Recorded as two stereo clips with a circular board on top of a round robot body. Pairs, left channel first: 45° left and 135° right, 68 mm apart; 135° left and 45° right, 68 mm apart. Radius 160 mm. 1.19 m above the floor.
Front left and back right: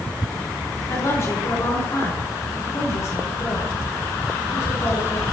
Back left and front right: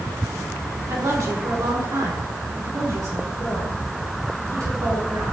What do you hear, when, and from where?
0.9 s a woman speaking: 5° right, 5.5 m